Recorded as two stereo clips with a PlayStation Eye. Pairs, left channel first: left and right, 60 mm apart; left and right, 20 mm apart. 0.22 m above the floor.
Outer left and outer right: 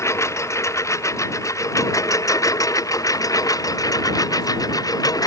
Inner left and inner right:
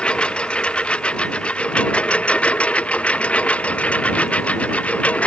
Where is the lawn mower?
50° left (ahead or behind); by 5.3 s 80° left.